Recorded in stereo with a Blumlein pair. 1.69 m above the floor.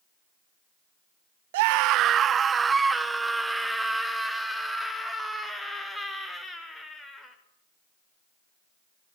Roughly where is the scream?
Ahead right.